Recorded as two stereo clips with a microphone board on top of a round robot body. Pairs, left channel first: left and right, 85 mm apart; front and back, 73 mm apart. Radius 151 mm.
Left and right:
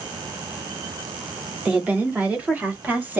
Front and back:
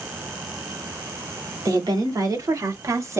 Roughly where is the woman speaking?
Behind.